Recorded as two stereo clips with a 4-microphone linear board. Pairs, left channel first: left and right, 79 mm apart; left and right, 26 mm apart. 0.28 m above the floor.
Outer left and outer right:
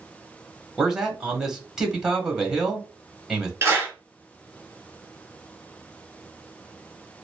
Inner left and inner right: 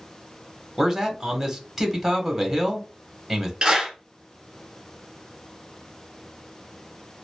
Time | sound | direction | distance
0.8 | a man speaking | 10° right (ahead or behind) | 1.2 m
3.6 | a clap | 30° right (ahead or behind) | 2.5 m